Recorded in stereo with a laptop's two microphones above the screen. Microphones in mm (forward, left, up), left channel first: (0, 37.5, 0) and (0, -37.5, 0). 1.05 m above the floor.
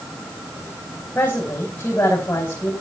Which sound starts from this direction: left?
A woman speaking, at 1.1 s.